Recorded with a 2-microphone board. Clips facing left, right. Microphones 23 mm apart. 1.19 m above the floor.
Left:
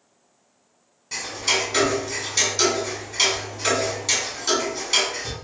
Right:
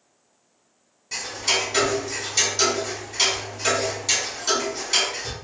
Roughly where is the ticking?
Centre.